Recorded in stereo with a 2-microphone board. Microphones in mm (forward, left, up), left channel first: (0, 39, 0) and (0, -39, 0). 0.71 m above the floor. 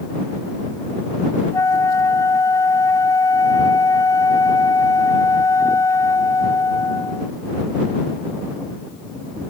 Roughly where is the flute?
Left.